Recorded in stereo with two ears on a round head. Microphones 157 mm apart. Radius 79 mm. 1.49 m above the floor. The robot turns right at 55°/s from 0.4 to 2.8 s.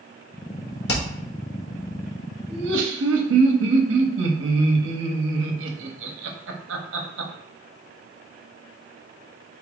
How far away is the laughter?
About 1.0 m.